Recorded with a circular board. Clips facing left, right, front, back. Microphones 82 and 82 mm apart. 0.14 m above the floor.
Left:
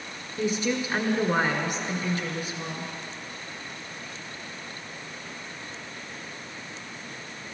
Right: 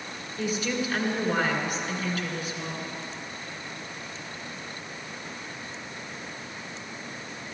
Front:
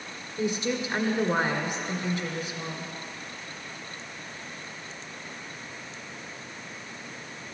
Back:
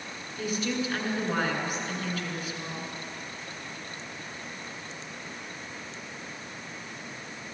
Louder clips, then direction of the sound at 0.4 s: Left 2 dB, front 2 dB; 50° left.